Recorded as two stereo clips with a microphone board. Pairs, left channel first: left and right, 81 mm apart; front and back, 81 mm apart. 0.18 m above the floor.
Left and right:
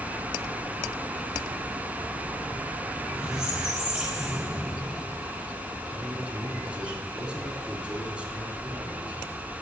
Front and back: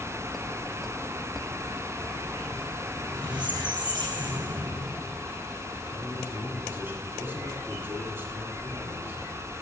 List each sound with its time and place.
3.0 s a squeak: 170° right, 3 m
5.9 s a man speaking: 150° right, 1.7 m